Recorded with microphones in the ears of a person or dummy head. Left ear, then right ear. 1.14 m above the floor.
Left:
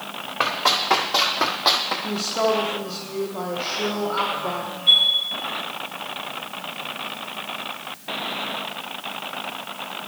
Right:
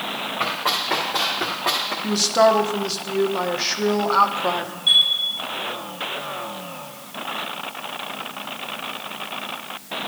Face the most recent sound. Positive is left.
turn(degrees=5)  # may be behind; listen again after turning